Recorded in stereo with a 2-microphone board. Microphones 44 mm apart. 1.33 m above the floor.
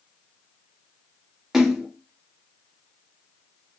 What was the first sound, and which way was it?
A splash, 10° right (ahead or behind).